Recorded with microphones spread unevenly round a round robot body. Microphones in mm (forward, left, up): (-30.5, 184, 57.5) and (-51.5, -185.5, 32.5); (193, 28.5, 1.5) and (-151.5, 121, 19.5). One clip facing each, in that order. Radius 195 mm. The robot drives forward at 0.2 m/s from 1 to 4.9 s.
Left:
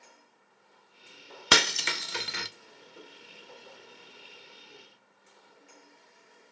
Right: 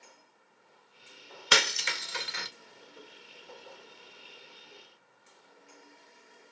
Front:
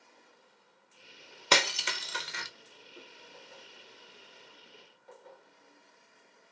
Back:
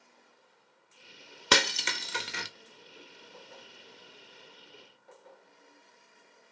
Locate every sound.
1.5 s breaking glass: 105° left, 0.5 m; by 2.5 s 125° left, 0.6 m
2.9 s a whoosh: 110° left, 2.5 m